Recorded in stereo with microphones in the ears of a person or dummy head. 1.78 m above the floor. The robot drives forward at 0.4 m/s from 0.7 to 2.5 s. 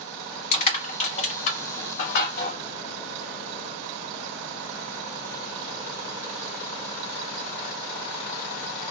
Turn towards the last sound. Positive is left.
turn(degrees=50)  # may be behind; listen again after turning